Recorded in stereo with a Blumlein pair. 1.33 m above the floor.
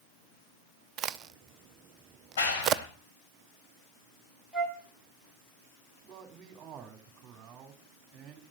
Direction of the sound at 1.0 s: 30° right.